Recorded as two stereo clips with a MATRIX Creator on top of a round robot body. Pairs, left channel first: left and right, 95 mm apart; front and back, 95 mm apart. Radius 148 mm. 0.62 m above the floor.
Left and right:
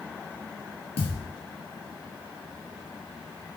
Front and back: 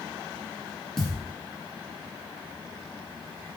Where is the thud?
85° left, 3 m.